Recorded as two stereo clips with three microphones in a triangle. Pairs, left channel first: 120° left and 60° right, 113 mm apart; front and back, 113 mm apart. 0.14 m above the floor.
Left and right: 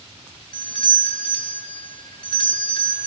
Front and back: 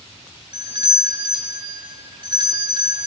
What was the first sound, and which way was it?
A doorbell, 155° left.